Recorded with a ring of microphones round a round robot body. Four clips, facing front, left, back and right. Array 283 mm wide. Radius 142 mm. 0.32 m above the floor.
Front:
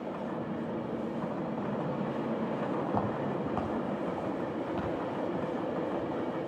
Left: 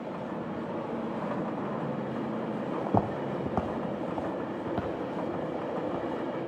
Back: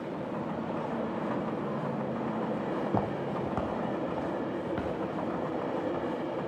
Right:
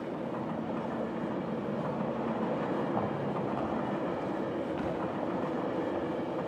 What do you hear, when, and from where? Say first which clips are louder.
2.9 s footsteps: left 3 dB, back 1 dB; 100° left, 0.9 m; by 6.5 s 115° left, 3.5 m